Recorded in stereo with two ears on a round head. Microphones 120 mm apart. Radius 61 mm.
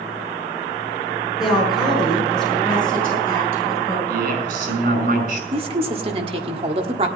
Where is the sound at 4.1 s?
70° right (ahead or behind), 5.5 m.